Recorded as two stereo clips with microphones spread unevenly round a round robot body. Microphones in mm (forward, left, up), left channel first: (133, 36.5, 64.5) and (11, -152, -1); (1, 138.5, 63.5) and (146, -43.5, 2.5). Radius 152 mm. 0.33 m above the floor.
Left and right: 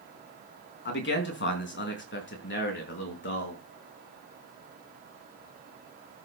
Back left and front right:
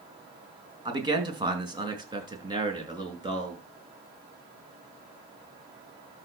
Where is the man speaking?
15° left, 4 m.